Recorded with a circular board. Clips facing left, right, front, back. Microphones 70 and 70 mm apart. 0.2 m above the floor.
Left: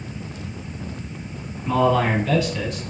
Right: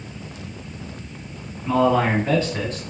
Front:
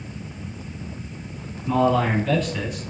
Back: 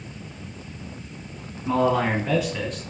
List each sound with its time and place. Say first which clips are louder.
1.6 s a man speaking: right 1 dB, front 1 dB; straight behind, 1.5 m; by 2.8 s 70° right, 1.5 m